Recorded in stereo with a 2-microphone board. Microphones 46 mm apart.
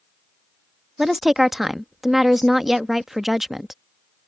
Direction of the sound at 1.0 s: 5° right (ahead or behind).